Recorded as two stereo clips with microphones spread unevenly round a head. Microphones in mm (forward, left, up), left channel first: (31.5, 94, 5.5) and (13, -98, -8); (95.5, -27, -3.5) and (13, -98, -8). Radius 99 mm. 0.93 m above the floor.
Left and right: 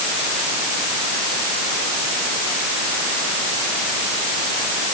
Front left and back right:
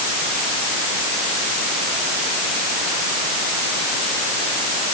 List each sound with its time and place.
Only background noise.